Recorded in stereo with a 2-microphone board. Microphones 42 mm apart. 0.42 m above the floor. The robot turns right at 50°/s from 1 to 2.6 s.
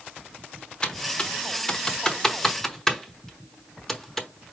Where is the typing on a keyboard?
20° left (ahead or behind), 0.9 m; by 4.3 s 10° left (ahead or behind), 0.9 m.